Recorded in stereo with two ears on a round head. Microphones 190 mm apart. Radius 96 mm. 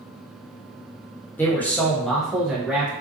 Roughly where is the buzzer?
I don't hear a buzzer.